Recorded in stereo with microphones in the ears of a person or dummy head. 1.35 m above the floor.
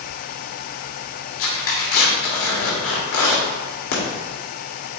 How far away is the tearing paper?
About 2 m.